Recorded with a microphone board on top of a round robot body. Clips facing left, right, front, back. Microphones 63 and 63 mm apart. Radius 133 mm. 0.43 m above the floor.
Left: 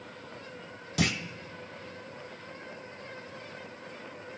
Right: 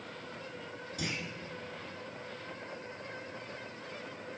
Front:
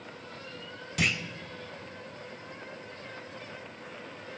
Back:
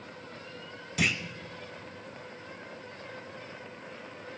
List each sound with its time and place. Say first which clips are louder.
1.0 s a clunk: left 9 dB, even; 95° left, 0.6 m